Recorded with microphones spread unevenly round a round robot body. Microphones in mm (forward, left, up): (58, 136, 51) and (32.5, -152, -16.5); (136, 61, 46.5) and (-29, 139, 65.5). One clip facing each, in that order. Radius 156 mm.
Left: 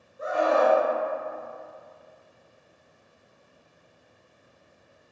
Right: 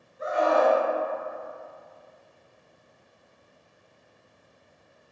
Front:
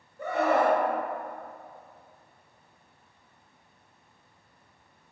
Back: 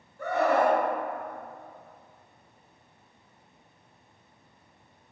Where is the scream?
40° left, 1.9 m.